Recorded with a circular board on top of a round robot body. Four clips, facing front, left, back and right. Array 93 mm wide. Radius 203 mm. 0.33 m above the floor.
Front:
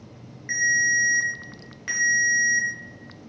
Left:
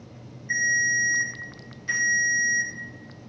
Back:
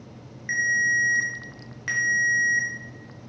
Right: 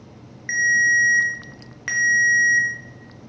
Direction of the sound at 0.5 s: 105° right.